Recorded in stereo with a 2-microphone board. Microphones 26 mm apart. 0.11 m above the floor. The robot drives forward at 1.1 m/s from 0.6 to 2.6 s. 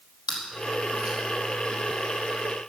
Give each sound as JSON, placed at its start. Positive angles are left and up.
{"t": 0.3, "sound": "chewing", "side_deg": -40, "distance_m": 3.5}